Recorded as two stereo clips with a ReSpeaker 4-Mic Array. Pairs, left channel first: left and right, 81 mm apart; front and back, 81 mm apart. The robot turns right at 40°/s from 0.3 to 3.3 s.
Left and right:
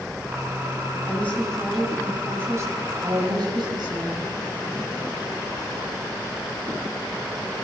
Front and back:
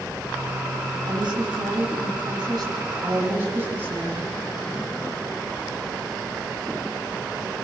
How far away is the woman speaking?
About 7 m.